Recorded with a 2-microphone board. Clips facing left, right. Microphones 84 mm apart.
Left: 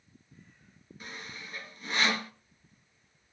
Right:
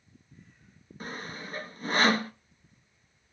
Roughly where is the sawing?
Right.